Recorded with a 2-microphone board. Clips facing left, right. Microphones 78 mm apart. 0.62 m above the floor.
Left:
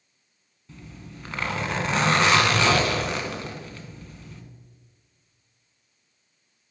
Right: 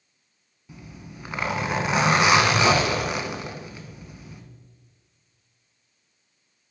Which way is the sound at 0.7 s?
10° right (ahead or behind).